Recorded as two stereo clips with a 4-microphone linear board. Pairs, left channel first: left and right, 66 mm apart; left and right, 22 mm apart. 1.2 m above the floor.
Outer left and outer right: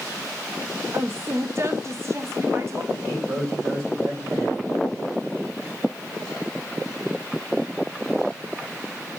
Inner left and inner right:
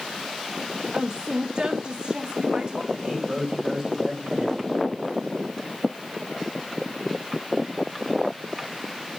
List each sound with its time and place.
0.9 s a woman speaking: 40° right (ahead or behind), 0.7 m
2.9 s a man speaking: 55° right (ahead or behind), 5.5 m